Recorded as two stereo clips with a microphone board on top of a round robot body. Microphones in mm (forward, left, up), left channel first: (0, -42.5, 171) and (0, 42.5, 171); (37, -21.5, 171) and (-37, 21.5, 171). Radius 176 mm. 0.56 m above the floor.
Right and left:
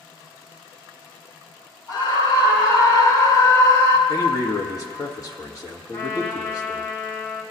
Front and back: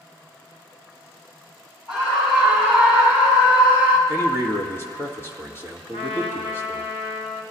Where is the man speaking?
80° right, 1.7 m.